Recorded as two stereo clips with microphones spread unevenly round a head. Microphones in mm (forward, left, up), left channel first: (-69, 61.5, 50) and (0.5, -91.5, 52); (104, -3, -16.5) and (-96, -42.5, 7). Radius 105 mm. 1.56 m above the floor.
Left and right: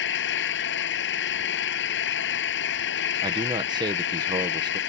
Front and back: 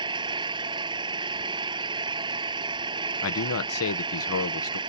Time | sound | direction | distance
0.0 | an engine running | 120° left | ?
3.2 | a man speaking | 5° left | ?